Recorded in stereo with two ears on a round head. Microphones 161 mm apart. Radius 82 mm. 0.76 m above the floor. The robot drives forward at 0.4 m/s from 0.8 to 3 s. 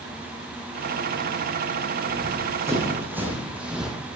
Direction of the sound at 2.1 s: 20° right (ahead or behind).